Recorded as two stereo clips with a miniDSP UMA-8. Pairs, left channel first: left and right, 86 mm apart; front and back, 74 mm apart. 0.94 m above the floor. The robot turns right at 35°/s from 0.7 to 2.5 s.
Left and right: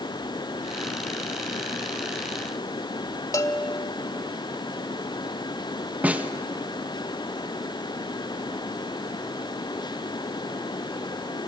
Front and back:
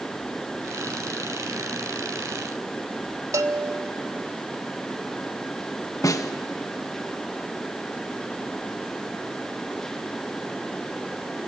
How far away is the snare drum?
About 1.1 m.